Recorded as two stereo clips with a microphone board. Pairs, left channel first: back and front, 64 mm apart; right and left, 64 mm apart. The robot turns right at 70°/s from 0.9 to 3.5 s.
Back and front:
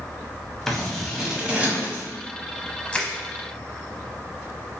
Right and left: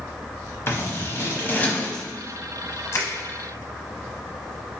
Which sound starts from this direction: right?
Scissors, at 0.7 s.